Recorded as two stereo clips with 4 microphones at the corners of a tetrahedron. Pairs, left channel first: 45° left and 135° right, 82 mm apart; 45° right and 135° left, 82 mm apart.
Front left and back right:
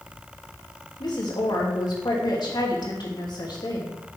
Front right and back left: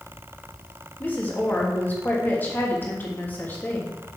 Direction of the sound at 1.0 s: 20° left.